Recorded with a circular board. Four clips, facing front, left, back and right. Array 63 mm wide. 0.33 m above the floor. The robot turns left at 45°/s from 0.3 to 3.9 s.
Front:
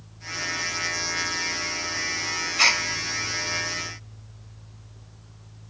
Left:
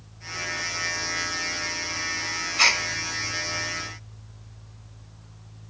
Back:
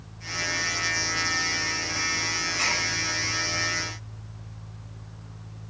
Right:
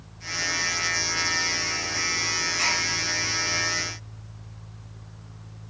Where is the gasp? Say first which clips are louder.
Left 6 dB, front 7 dB; 50° left, 0.7 m; by 2.8 s 40° left, 0.7 m.